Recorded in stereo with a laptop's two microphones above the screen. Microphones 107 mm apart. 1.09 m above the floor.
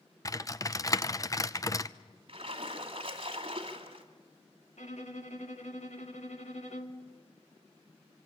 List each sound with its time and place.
0.2 s typing on a keyboard: 30° left (ahead or behind), 0.5 m
2.3 s a splash: 55° right (ahead or behind), 2 m
4.8 s a violin: 85° left, 1.8 m